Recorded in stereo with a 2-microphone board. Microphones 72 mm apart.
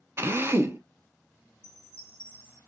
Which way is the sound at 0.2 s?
35° right (ahead or behind).